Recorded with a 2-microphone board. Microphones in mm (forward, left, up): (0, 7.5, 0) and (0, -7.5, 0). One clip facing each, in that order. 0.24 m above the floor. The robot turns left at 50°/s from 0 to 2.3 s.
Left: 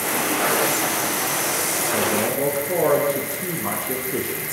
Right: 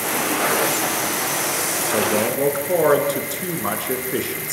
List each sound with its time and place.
1.9 s a man speaking: 60° right (ahead or behind), 4 m; by 4.5 s 40° right (ahead or behind), 4 m